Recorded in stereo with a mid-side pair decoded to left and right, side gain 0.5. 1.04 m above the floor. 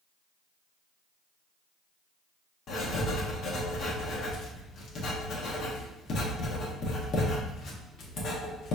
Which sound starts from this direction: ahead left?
Writing, at 2.7 s.